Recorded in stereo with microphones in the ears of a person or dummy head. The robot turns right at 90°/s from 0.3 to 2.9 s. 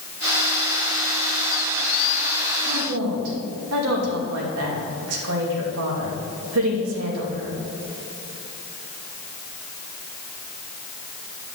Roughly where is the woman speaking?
Right.